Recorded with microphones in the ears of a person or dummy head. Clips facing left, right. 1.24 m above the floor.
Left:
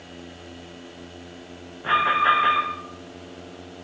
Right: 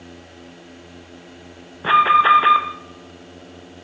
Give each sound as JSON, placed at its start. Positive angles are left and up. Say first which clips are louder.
{"t": 1.8, "sound": "an alarm", "louder": "right 6 dB", "side_deg": -60, "distance_m": 0.8}